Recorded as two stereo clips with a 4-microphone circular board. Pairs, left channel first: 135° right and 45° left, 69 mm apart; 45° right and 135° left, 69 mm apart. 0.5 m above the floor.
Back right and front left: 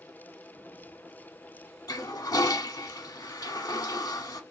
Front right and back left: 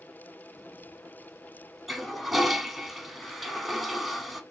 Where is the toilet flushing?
140° right, 0.8 m.